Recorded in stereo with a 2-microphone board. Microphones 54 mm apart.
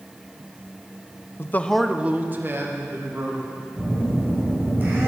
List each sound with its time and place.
1.4 s a man speaking: 45° left (ahead or behind), 0.7 m; by 3.6 s 55° right (ahead or behind), 3 m
3.8 s a phone buzzing: 40° right (ahead or behind), 3.5 m